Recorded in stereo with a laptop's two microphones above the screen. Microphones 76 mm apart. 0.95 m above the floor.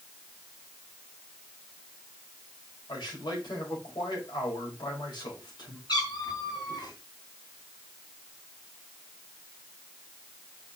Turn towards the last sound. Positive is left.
turn(degrees=70)  # may be behind; listen again after turning